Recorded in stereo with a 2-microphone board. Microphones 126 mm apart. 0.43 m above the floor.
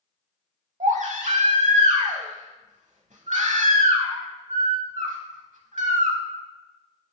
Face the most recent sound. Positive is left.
turn(degrees=-80)